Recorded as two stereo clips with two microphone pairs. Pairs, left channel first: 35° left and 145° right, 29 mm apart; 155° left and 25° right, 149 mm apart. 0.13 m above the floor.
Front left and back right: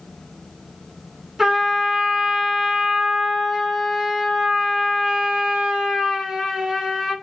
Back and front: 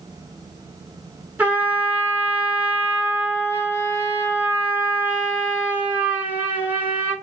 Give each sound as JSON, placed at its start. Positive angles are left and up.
{"t": 1.4, "sound": "a trumpet", "azimuth_deg": -90, "distance_m": 1.2}